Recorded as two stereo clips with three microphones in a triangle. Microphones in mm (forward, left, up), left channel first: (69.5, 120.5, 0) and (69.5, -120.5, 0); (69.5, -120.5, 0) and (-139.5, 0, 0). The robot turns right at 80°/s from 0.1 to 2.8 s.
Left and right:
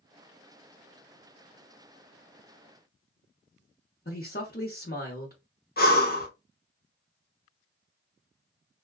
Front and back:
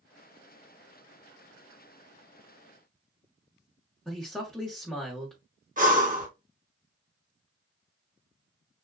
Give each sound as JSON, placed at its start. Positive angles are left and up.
{"t": 4.0, "sound": "a man speaking", "azimuth_deg": 55, "distance_m": 0.9}
{"t": 5.8, "sound": "breathing", "azimuth_deg": 115, "distance_m": 0.8}